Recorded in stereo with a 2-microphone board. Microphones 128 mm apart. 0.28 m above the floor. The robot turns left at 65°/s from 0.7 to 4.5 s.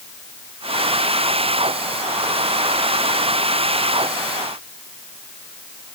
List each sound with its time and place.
Only background noise.